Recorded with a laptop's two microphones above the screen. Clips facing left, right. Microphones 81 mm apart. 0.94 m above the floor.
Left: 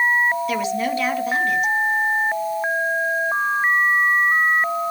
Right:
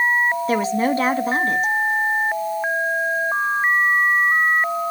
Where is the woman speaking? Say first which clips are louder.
Right 3 dB; 35° right (ahead or behind), 1.2 m.